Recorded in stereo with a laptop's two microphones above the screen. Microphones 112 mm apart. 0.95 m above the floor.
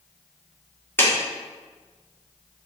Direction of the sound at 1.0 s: 20° left (ahead or behind).